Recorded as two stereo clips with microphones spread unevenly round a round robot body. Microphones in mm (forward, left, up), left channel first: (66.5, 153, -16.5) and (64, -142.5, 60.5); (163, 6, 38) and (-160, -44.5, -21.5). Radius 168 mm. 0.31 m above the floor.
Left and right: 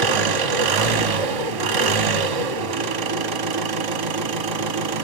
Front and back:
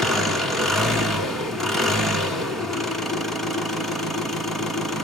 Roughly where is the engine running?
Right.